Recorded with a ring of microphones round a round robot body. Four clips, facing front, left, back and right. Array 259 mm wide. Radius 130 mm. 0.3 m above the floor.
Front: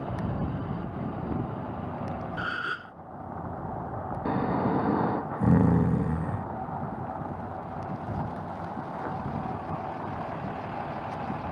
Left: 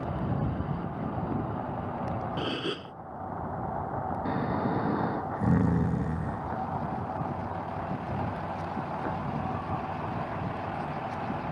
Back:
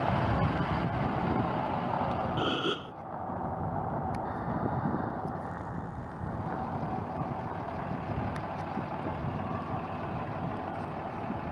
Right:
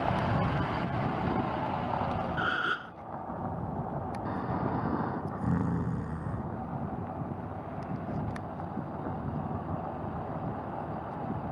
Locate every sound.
2.4 s a gasp: 140° left
4.2 s snoring: 10° left